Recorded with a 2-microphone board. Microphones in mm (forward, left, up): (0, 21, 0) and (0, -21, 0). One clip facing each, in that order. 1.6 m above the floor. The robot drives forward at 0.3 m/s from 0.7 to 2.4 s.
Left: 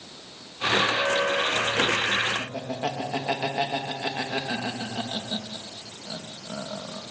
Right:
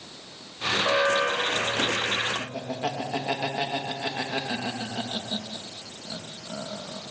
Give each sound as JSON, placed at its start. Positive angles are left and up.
{"t": 0.8, "sound": "an alarm", "side_deg": -90, "distance_m": 9.0}
{"t": 2.4, "sound": "laughter", "side_deg": 15, "distance_m": 2.5}